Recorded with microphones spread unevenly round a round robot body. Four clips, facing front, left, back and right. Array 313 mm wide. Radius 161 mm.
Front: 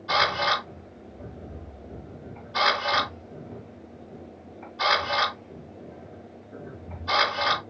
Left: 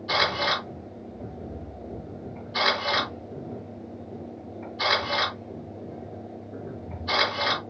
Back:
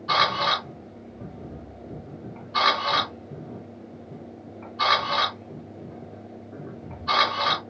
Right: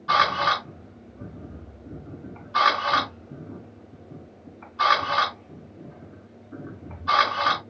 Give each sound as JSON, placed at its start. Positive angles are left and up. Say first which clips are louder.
{"t": 0.1, "sound": "a camera shutter", "louder": "right 5 dB, back 1 dB", "azimuth_deg": -120, "distance_m": 4.0}